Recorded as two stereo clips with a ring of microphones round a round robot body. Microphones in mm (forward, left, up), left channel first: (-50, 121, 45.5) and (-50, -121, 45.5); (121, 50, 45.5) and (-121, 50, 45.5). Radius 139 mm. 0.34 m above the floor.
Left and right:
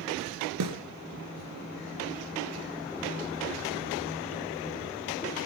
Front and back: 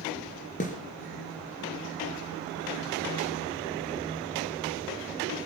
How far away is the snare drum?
About 2.5 m.